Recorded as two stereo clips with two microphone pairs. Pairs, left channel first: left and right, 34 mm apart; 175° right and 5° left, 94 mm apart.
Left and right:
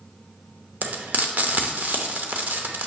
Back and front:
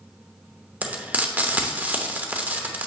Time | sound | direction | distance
0.8 | frying | 65° right | 0.8 m